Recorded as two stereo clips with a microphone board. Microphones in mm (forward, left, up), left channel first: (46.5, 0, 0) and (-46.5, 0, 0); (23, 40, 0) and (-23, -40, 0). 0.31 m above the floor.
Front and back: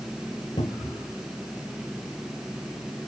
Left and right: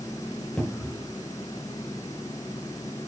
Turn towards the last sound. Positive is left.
turn(degrees=-20)